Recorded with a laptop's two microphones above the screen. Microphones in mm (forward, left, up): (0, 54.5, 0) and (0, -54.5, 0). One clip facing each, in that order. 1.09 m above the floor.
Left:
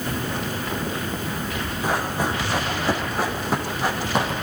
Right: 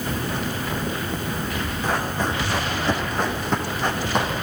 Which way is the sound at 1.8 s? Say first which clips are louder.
Left 1 dB; 10° left (ahead or behind).